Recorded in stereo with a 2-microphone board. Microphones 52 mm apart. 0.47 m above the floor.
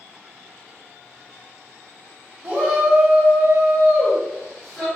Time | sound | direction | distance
2.4 | a shout | 35° right (ahead or behind) | 1.2 m